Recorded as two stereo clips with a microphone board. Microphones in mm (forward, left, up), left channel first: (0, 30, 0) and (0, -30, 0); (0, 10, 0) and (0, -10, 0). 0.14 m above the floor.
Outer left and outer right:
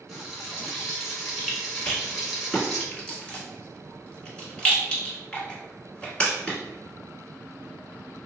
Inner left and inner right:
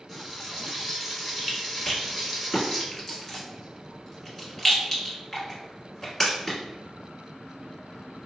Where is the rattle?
15° left (ahead or behind), 1.1 m.